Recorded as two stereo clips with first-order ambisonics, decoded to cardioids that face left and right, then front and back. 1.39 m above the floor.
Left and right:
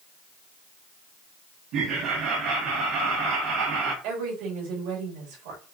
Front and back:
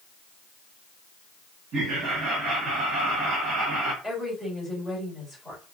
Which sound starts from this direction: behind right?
Laughter, at 1.7 s.